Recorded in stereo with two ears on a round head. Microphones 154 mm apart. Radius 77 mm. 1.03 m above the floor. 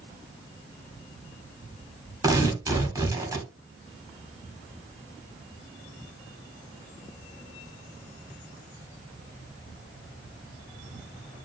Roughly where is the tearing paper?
Right.